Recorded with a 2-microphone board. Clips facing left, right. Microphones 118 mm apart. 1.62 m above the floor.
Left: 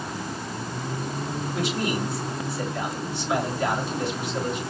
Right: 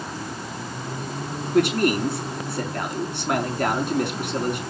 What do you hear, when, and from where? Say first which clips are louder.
1.5 s a man speaking: right 9 dB; 65° right (ahead or behind), 3.5 m